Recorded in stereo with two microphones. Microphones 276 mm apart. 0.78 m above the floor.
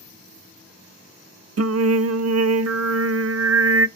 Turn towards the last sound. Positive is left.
turn(degrees=-65)  # may be behind; listen again after turning